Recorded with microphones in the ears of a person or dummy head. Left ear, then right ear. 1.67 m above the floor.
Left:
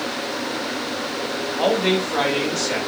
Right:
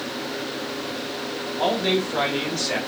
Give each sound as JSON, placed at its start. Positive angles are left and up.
{"t": 1.6, "sound": "a man speaking", "side_deg": 50, "distance_m": 1.9}